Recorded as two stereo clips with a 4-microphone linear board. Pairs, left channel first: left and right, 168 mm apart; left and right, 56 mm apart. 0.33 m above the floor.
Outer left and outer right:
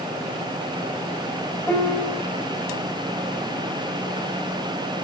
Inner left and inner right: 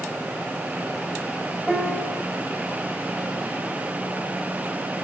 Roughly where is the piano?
Centre.